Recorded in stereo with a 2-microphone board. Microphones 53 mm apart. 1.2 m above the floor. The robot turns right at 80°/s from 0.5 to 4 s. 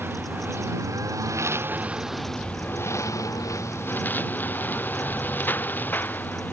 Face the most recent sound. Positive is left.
turn(degrees=145)